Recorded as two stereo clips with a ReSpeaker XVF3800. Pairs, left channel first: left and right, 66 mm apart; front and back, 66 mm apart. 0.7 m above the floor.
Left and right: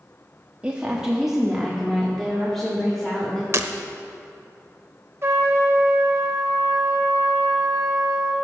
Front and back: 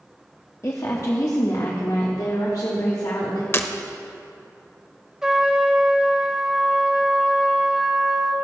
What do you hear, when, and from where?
0.6 s a woman speaking: 25° right, 0.9 m; by 3.4 s 10° left, 2 m
3.5 s breaking glass: 50° right, 0.7 m
5.2 s a trumpet: 105° right, 1.3 m